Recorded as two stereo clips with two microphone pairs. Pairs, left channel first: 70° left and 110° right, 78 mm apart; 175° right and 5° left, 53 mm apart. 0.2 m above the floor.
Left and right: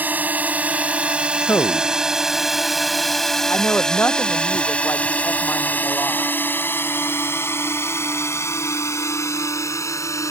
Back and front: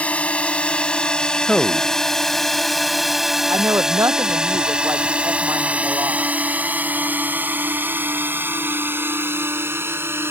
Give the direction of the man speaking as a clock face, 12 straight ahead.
8 o'clock.